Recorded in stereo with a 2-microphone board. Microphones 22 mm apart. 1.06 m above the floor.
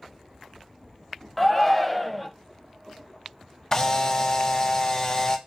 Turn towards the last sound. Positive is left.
turn(degrees=25)  # may be behind; listen again after turning